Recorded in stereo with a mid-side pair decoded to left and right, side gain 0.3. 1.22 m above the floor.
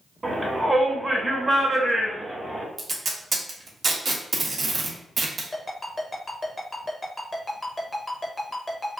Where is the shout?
35° right, 1.3 m.